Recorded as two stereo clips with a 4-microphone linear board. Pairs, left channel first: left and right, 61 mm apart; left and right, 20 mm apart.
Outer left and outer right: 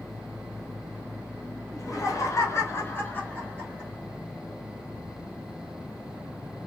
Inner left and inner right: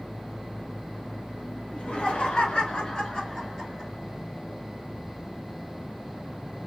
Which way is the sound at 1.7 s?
60° left (ahead or behind).